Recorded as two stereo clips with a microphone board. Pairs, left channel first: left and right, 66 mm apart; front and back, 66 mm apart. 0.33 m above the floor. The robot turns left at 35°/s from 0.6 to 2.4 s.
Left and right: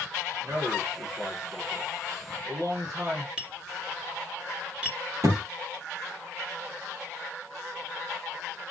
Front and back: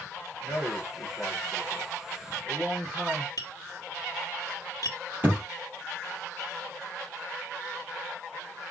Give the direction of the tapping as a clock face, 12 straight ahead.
1 o'clock.